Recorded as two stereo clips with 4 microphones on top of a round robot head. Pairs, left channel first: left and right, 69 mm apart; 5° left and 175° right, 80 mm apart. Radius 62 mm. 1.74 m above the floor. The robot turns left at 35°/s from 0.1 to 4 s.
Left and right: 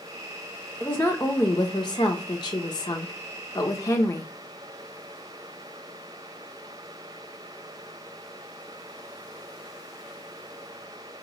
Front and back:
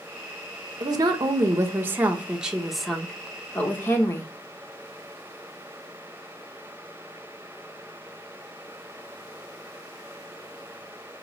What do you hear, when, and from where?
0.8 s a woman speaking: 165° left, 0.7 m; by 4.3 s 55° left, 0.7 m